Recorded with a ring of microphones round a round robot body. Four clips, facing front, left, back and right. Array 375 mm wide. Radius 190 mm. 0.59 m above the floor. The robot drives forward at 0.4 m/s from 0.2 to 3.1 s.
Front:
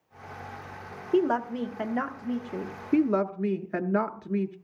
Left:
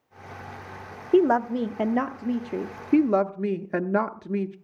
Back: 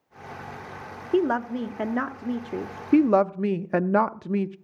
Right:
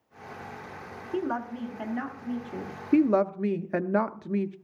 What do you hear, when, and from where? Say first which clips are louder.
1.1 s a woman speaking: left 11 dB, back 1 dB; 95° left, 1.0 m; by 2.7 s 135° left, 1.2 m
2.9 s a woman speaking: left 1 dB, back 5 dB; straight behind, 0.6 m